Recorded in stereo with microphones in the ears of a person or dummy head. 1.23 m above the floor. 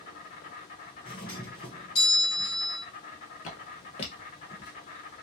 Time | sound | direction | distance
0.0 | an insect | 40° left (ahead or behind) | 1.1 m
1.1 | a doorbell | 20° left (ahead or behind) | 1.6 m
3.4 | footsteps | 40° left (ahead or behind) | 1.7 m